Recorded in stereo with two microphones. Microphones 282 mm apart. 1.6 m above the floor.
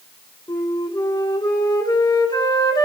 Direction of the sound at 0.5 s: 15° left (ahead or behind).